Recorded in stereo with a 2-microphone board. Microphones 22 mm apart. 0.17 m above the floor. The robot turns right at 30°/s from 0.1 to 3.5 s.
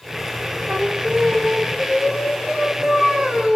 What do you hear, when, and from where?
0.7 s singing: 125° right, 5 m; by 3.6 s 40° right, 5 m